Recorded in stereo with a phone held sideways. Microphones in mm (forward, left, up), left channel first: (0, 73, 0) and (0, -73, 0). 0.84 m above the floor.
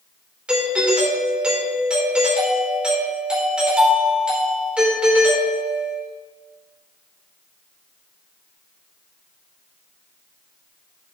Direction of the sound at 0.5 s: 5° right (ahead or behind).